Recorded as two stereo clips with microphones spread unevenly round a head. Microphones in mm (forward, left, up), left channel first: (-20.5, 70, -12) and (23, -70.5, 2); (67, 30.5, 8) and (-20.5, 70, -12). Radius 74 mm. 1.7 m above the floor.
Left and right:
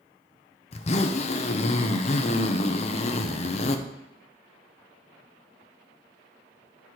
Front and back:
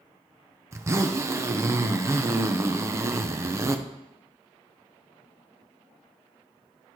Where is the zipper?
95° left, 0.7 m.